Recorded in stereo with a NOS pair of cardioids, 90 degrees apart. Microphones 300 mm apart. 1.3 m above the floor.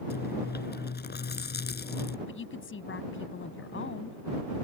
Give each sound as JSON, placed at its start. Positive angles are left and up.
{"t": 0.1, "sound": "chewing", "azimuth_deg": 35}
{"t": 2.3, "sound": "a woman speaking", "azimuth_deg": 40}